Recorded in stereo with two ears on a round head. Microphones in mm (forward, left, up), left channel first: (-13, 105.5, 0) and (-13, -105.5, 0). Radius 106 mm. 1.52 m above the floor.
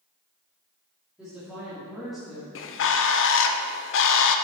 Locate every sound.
1.2 s a woman speaking: 5° right (ahead or behind), 3.5 m; by 2.5 s centre (ahead or behind), 2 m
2.5 s a bird: 55° left (ahead or behind), 0.6 m